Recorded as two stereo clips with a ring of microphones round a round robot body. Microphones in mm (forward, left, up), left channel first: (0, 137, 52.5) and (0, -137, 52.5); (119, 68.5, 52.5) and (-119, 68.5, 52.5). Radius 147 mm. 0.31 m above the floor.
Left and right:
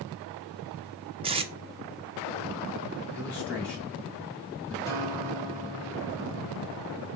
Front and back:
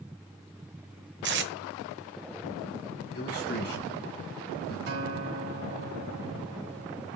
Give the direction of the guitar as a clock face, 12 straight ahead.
6 o'clock.